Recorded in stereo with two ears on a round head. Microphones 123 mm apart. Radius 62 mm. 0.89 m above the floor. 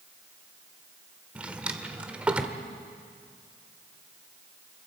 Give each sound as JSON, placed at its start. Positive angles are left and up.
{"t": 1.4, "sound": "a drawer", "side_deg": -10, "distance_m": 1.1}